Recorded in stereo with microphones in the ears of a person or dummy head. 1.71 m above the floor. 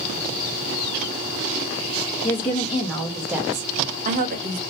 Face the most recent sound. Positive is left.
turn(degrees=-60)  # may be behind; listen again after turning